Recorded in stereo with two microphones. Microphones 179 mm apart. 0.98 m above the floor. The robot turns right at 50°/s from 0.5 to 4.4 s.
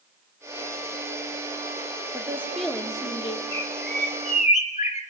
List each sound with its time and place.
2.1 s a woman speaking: 20° right, 2.5 m; by 3.4 s 40° left, 2.5 m
3.5 s a bird: 95° left, 3 m; by 5.0 s 140° left, 3 m